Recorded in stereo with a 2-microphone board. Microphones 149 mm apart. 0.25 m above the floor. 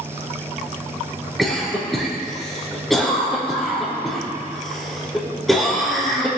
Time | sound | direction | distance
1.4 | a cough | centre (ahead or behind) | 4.5 m